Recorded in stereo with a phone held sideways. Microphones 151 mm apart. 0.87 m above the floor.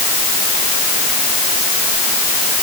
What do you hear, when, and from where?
Only background noise.